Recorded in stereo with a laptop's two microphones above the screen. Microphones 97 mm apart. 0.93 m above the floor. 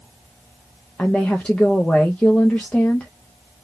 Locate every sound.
1.0 s a woman speaking: 15° left (ahead or behind), 0.6 m